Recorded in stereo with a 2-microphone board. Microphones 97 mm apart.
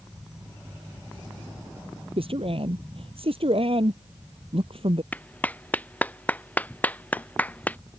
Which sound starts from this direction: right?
A man speaking, at 2.2 s.